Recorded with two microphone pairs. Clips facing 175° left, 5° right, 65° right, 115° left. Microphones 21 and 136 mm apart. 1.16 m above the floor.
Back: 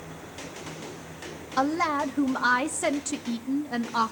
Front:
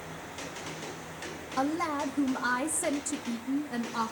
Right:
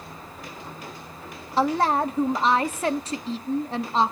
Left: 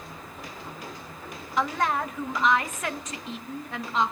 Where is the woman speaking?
130° right, 1.1 m.